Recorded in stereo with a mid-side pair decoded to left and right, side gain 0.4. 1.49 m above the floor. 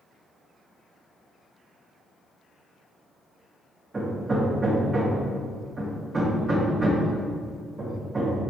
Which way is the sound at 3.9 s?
35° right.